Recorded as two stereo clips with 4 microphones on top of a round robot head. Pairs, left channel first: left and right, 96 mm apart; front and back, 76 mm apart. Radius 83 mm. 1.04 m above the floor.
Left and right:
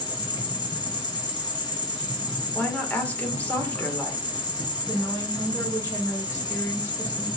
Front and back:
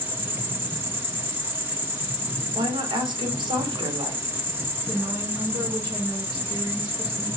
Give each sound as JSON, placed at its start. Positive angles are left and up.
{"t": 0.0, "sound": "an insect", "azimuth_deg": 120, "distance_m": 3.0}
{"t": 2.5, "sound": "a woman speaking", "azimuth_deg": 165, "distance_m": 3.0}
{"t": 4.9, "sound": "a woman speaking", "azimuth_deg": 150, "distance_m": 4.0}